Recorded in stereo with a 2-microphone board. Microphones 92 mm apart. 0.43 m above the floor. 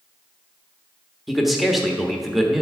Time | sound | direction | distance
1.3 | a man speaking | centre (ahead or behind) | 1.0 m